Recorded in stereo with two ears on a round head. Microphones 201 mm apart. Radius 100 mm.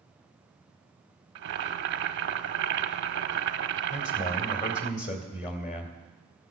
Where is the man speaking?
40° left (ahead or behind), 2.5 m.